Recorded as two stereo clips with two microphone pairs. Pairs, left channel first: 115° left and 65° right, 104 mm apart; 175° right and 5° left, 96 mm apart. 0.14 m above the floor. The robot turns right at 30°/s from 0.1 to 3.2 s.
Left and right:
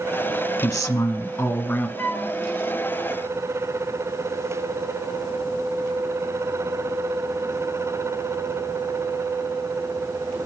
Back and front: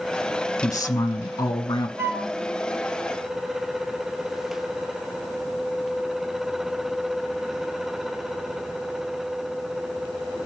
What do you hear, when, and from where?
0.6 s a woman speaking: 155° left, 1.4 m; by 1.9 s 170° right, 1.4 m
2.0 s a flute: 55° left, 1.3 m; by 2.3 s 65° left, 1.3 m